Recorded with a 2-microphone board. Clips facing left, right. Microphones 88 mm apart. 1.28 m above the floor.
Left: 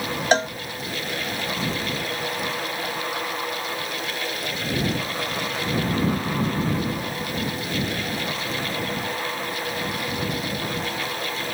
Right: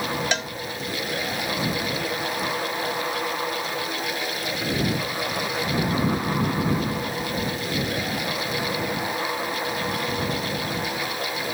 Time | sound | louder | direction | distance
0.3 | a cowbell | left 8 dB | 35° left (ahead or behind) | ?